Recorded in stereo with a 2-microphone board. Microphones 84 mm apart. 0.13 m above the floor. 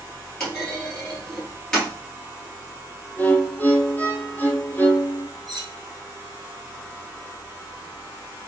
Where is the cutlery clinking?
55° right (ahead or behind), 2.5 m.